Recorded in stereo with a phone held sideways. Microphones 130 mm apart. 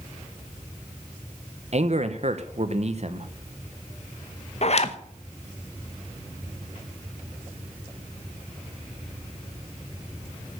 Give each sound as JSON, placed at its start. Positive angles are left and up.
{"t": 1.7, "sound": "a man speaking", "side_deg": -55, "distance_m": 1.1}
{"t": 4.6, "sound": "a zipper", "side_deg": 50, "distance_m": 0.9}